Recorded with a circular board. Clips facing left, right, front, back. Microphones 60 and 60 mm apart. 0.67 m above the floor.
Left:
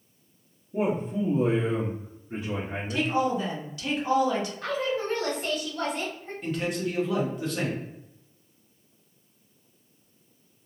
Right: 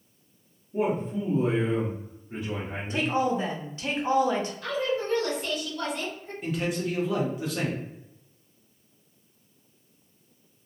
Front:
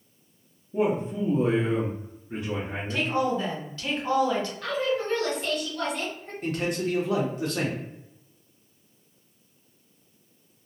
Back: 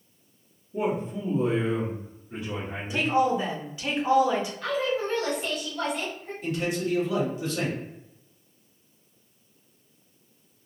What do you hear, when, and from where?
0.7 s a man speaking: 40° left, 0.9 m
2.9 s a woman speaking: 115° right, 0.7 m
4.6 s a woman speaking: 95° left, 1.3 m
6.4 s a man speaking: 5° right, 1.0 m